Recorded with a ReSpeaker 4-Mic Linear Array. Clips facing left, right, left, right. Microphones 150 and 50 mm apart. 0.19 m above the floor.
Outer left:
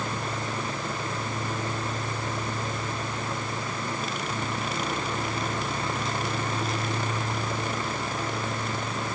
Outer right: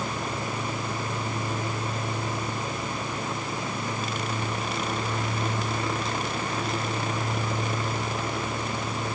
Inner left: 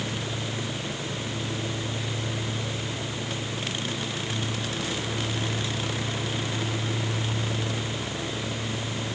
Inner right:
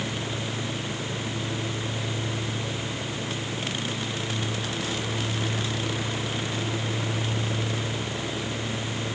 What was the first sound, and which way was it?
Only background noise.